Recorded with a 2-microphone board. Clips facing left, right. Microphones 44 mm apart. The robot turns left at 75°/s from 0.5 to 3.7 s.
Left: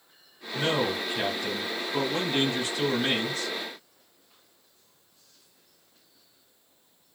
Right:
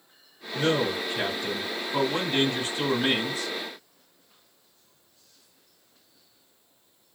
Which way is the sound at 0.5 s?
60° left.